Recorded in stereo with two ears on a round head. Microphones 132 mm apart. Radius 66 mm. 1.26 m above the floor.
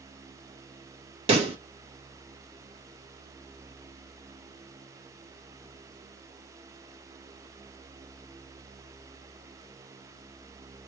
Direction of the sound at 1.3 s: 40° right (ahead or behind).